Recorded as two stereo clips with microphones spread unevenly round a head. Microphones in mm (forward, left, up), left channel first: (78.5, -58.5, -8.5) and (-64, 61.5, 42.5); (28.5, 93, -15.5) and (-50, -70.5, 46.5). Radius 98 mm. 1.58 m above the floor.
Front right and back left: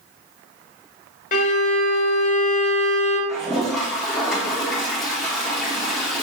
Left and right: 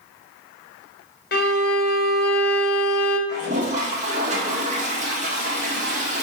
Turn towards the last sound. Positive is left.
turn(degrees=-140)